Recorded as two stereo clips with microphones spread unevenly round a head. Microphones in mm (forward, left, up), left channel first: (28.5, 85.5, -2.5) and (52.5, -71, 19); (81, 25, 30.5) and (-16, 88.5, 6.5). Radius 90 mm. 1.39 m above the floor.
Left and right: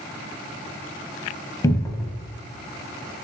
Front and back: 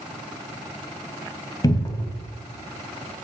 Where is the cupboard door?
30° left, 0.7 m.